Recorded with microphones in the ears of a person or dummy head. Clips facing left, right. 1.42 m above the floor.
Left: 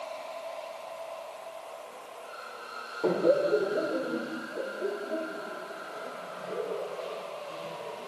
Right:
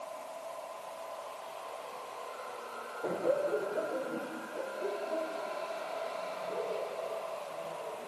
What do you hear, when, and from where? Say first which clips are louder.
3.0 s laughter: left 7 dB; 60° left (ahead or behind); by 8.1 s 25° left (ahead or behind)